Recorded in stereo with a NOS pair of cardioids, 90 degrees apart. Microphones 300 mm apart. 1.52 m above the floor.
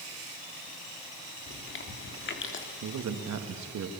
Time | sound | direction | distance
1.5 | chewing | 40° left | 3 m
2.8 | a man speaking | 65° right | 2.5 m